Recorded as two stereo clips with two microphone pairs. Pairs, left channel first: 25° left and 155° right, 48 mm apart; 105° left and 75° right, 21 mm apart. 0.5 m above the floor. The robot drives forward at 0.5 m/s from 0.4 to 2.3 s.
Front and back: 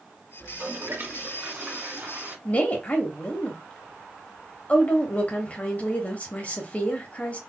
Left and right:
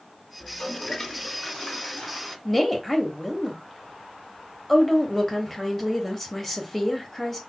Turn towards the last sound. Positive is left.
turn(degrees=30)